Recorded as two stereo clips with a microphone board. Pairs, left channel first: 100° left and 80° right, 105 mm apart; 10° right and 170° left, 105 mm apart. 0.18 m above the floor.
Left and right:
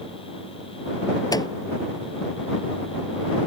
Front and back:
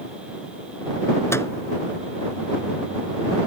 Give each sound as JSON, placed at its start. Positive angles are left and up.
{"t": 1.3, "sound": "a microwave", "azimuth_deg": 50}